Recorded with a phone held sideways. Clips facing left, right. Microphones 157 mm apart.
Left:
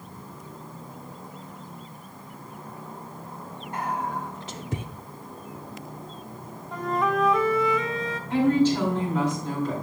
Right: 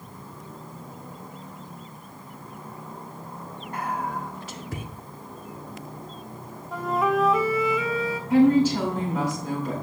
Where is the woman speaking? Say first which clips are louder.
Right 3 dB; 10° right (ahead or behind), 5 m.